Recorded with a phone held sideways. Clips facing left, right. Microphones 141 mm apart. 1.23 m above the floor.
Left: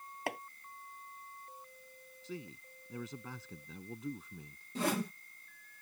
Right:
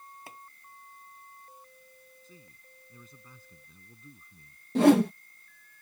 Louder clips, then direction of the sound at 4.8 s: Right 15 dB; 70° right (ahead or behind).